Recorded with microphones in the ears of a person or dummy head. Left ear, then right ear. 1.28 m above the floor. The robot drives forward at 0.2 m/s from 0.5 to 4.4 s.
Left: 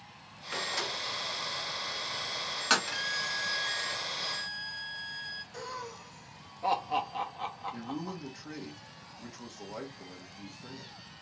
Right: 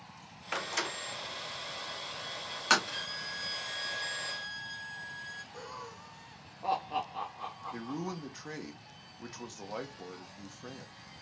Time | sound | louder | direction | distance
0.5 | a door slam | left 1 dB | 30° right (ahead or behind) | 0.5 m
2.9 | a violin | left 5 dB | 25° left (ahead or behind) | 1.1 m
5.5 | laughter | left 4 dB | 20° left (ahead or behind) | 0.6 m
7.7 | a man speaking | even | 45° right (ahead or behind) | 1.0 m